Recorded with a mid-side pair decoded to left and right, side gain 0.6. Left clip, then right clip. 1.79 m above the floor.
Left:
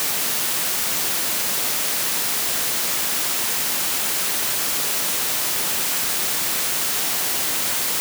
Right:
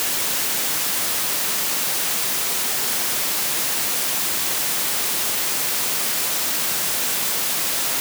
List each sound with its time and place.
Only background noise.